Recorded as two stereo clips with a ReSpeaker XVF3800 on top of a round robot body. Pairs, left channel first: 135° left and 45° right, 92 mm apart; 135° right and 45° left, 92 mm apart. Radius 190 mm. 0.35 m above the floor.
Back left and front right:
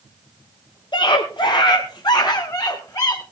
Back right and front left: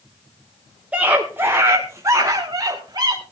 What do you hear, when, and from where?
0.9 s a scream: 120° left, 1.9 m; by 3.2 s 85° left, 2.5 m